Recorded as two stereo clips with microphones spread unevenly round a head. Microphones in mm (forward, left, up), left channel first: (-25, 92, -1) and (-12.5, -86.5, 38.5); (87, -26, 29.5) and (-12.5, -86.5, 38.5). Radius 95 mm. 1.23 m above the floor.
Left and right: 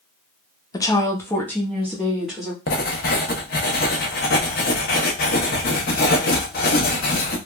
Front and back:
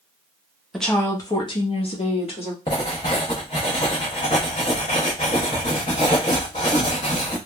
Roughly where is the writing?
Left.